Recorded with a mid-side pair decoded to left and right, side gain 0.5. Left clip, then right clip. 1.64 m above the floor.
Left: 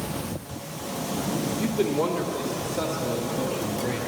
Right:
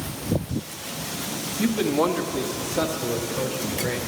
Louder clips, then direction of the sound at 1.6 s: Right 4 dB; 50° right.